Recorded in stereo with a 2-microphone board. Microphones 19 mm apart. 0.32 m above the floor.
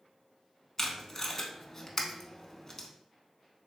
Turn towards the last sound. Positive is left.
turn(degrees=20)  # may be behind; listen again after turning